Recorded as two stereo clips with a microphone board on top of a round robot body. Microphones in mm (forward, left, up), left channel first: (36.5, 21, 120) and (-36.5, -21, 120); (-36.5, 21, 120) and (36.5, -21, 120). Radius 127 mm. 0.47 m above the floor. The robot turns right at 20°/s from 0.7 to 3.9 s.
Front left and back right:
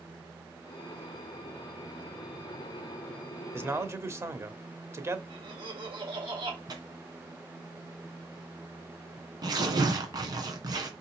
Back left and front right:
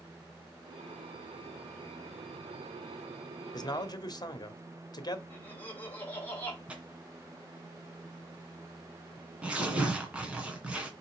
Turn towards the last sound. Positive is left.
turn(degrees=-105)